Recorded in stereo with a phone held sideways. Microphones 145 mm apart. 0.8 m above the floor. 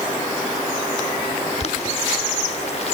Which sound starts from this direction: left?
Boiling, at 1.6 s.